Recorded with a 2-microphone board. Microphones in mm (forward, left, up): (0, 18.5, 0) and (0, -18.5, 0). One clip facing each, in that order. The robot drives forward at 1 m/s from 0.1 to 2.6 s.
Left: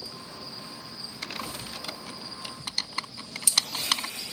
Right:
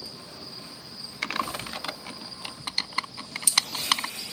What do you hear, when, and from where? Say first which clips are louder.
1.2 s typing on a keyboard: right 7 dB; 70° right (ahead or behind); by 4.1 s 20° right (ahead or behind)